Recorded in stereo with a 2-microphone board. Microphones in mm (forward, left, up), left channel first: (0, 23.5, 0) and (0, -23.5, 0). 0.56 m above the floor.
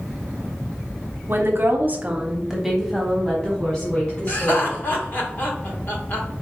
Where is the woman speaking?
50° right (ahead or behind), 1.1 m; by 4.8 s 25° left (ahead or behind), 2.5 m.